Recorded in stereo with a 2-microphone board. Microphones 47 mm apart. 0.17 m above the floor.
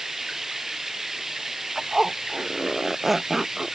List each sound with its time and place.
0.0 s running water: 10° right (ahead or behind)
1.8 s a zipper: 5° right (ahead or behind)